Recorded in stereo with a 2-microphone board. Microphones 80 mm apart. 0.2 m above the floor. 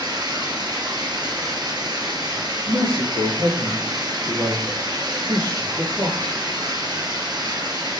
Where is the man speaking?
60° right (ahead or behind), 4.5 m.